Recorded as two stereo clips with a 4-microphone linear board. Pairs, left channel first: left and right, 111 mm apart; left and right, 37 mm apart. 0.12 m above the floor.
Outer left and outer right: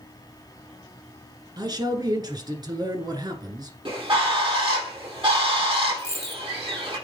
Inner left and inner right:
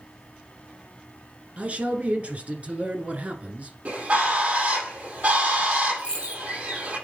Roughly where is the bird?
Right.